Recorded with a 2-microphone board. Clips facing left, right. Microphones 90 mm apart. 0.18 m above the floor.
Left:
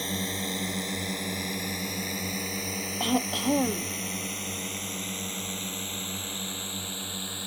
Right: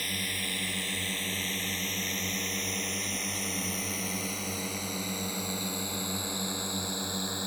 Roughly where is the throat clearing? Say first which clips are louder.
Left 10 dB; left.